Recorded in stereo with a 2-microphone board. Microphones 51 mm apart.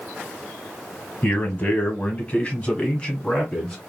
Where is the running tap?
I don't hear a running tap.